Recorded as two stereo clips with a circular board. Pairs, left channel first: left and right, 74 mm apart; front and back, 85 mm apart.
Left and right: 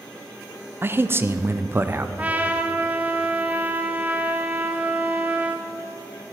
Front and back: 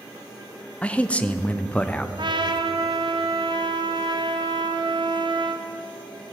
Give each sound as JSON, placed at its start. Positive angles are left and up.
{"t": 0.8, "sound": "a man speaking", "azimuth_deg": -65, "distance_m": 0.5}
{"t": 2.2, "sound": "a trumpet", "azimuth_deg": -160, "distance_m": 0.7}